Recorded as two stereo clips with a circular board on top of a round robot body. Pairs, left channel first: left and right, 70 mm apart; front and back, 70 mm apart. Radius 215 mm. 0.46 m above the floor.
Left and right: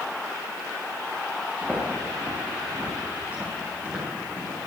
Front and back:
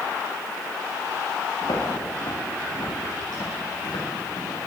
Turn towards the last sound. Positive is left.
turn(degrees=-30)